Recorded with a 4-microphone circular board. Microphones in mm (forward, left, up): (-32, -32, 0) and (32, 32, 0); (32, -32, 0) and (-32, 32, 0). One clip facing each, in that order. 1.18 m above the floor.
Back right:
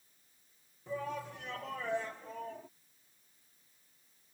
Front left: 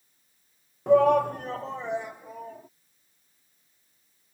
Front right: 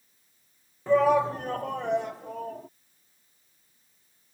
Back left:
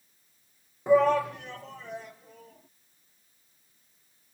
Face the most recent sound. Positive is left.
turn(degrees=-35)